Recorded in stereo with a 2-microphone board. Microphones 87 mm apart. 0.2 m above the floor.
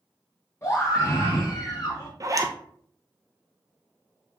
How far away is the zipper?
About 0.8 m.